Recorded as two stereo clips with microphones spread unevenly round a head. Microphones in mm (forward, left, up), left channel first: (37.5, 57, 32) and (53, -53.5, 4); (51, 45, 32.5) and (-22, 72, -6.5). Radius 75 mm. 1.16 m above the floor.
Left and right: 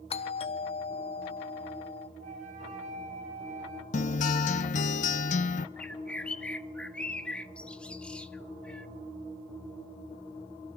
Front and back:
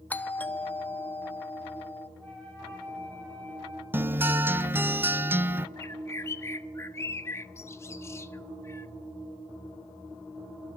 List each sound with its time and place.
0.1 s a doorbell: 65° left, 1.2 m
2.2 s a flute: 105° right, 3.5 m
3.9 s a guitar: 90° left, 1.0 m
5.8 s a bird: 25° left, 1.0 m